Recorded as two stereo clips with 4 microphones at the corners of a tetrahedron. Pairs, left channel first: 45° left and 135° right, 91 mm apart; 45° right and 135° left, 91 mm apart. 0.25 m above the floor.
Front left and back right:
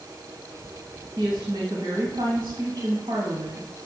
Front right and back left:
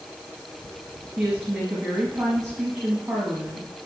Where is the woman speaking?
160° right, 1.5 m.